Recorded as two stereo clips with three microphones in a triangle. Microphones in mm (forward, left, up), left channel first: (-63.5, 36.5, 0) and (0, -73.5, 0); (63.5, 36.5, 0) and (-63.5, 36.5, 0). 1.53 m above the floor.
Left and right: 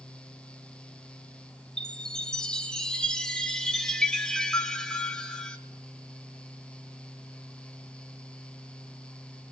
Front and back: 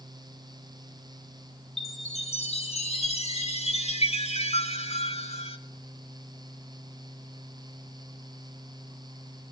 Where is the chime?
35° left, 3 m.